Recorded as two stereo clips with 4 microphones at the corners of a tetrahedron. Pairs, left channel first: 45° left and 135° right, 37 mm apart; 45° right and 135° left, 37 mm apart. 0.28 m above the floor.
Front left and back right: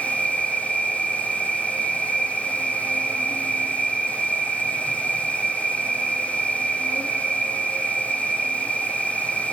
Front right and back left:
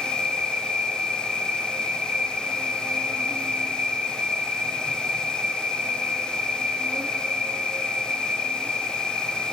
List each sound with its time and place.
0.0 s an insect: 165° left, 5 m